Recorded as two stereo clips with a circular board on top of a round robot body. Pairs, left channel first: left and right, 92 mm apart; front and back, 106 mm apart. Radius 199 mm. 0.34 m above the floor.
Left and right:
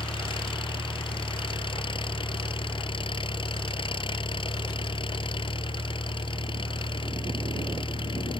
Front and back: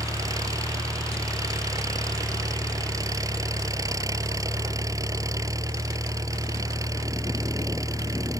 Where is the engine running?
120° left.